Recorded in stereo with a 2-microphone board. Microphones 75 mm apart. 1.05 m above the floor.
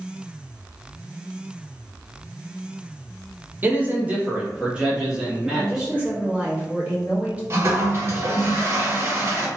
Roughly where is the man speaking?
Right.